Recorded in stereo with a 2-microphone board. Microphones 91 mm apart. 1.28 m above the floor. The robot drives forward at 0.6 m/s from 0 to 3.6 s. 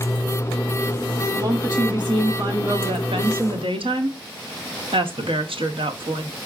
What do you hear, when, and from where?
1.3 s a woman speaking: 45° right (ahead or behind), 1.5 m; by 6.3 s 75° right (ahead or behind), 1.1 m